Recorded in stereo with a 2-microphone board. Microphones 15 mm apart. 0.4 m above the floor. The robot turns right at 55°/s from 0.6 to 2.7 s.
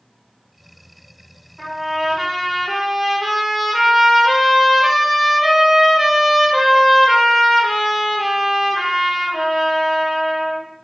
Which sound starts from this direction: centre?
A trumpet, at 1.6 s.